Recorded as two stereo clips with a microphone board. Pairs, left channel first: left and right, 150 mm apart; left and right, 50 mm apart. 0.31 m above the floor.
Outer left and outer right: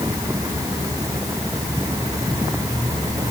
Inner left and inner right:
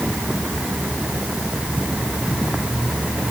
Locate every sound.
Only background noise.